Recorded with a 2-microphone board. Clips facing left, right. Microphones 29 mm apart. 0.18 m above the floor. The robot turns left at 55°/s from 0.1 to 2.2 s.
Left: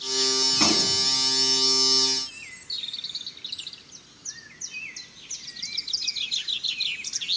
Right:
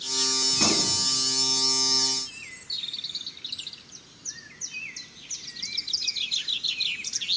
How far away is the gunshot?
About 1.8 m.